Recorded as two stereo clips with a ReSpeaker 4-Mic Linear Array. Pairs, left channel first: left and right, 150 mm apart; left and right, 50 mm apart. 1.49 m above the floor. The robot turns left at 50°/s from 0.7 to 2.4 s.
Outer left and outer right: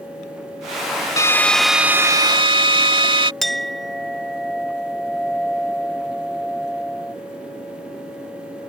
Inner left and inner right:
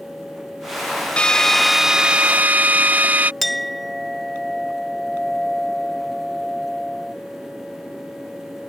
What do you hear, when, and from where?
1.2 s a drill: 25° left; by 3.3 s 40° right
3.4 s a clink: centre (ahead or behind)